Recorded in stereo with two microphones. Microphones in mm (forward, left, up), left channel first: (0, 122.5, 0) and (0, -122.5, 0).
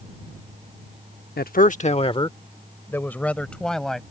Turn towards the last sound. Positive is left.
turn(degrees=0)  # may be behind; listen again after turning